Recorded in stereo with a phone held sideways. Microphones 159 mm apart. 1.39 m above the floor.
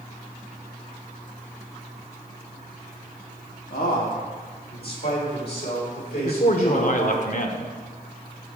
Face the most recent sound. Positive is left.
turn(degrees=55)  # may be behind; listen again after turning